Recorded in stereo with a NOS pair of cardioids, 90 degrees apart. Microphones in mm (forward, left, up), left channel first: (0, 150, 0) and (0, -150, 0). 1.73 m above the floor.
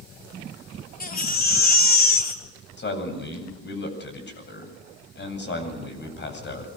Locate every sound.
1.0 s a baby crying: 30° left, 3.5 m
2.8 s a man speaking: 35° left, 8.5 m